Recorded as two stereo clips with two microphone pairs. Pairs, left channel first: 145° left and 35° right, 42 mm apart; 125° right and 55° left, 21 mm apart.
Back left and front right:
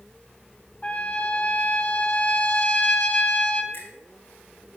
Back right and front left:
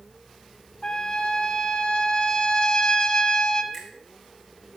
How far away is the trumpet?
About 0.9 m.